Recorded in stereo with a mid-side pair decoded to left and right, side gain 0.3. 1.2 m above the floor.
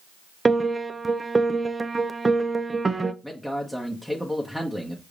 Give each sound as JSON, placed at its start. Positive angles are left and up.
{"t": 0.5, "sound": "a piano", "azimuth_deg": -30, "distance_m": 0.5}
{"t": 3.2, "sound": "a man speaking", "azimuth_deg": 5, "distance_m": 1.0}